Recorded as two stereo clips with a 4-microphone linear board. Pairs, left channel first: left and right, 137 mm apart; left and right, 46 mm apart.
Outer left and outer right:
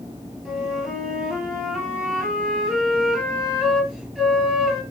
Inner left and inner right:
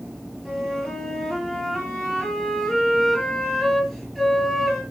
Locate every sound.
0.5 s a flute: 5° right (ahead or behind), 8 m